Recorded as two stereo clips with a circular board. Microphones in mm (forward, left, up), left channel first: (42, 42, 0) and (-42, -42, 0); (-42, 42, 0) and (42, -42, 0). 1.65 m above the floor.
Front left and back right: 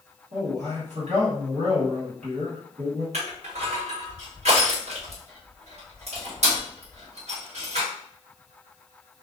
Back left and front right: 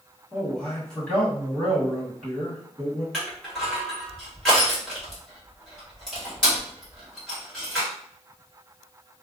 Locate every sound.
0.3 s a man speaking: 145° right, 2.0 m
3.1 s crushing: 140° right, 1.7 m